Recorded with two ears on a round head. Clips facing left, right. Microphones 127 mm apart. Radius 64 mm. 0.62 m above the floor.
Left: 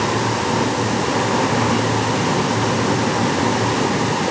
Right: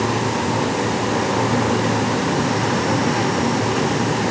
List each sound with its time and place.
Only background noise.